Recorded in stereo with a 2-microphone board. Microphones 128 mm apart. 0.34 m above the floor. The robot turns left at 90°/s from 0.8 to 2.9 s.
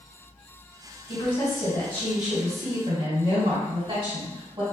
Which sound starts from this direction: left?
A woman speaking, at 1.1 s.